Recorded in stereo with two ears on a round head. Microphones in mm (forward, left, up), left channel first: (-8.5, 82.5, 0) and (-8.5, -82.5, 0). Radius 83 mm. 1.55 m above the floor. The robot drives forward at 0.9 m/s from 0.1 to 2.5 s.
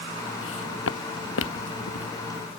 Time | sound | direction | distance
0.4 | footsteps | 75° left (ahead or behind) | ?